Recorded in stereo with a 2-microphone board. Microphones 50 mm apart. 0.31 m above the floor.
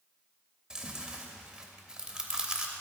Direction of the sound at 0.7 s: 15° right (ahead or behind).